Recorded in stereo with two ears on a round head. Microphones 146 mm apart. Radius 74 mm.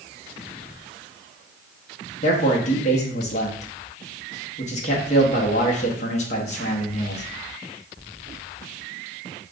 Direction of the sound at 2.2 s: 45° left (ahead or behind).